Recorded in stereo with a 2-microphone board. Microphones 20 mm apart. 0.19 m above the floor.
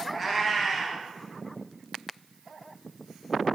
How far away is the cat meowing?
About 0.8 m.